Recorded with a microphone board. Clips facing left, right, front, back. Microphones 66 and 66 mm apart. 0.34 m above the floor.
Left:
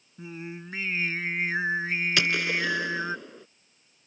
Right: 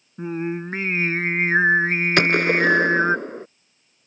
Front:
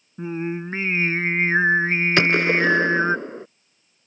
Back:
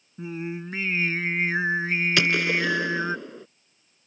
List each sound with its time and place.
0.2 s singing: 55° right
2.2 s a gunshot: 50° right